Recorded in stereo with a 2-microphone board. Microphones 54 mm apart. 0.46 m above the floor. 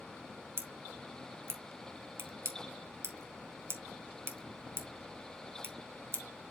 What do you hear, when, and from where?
0.6 s scissors: 55° right (ahead or behind), 1.3 m